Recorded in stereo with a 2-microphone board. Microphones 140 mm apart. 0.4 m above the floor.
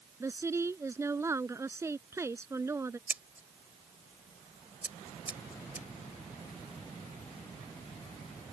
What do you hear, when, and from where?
0.2 s a woman speaking: 20° right (ahead or behind)
3.1 s scissors: 10° right (ahead or behind)